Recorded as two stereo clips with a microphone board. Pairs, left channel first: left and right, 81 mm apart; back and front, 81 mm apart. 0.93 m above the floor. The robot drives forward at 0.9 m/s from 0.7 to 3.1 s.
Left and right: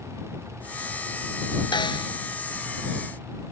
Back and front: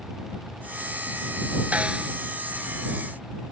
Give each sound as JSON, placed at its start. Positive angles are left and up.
{"t": 1.7, "sound": "a snare drum", "azimuth_deg": 75}